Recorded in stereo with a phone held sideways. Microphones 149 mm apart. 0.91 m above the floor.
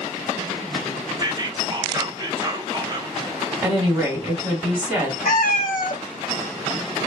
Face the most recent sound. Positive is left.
turn(degrees=80)